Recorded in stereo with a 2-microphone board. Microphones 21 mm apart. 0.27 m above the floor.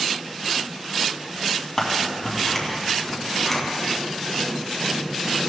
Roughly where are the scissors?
Centre.